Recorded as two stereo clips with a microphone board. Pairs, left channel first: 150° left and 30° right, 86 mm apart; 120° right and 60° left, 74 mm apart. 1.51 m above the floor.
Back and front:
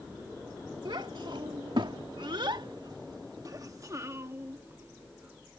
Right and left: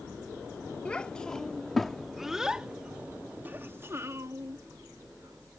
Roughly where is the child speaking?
Ahead right.